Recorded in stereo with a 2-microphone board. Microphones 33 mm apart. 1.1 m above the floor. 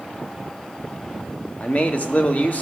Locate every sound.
1.6 s a man speaking: 45° left (ahead or behind), 1.2 m